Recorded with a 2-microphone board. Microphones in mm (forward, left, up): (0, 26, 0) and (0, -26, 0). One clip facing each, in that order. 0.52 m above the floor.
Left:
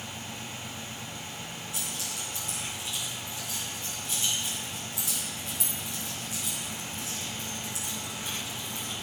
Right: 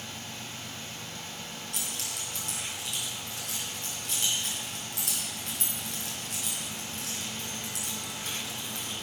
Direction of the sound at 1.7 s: 60° right (ahead or behind).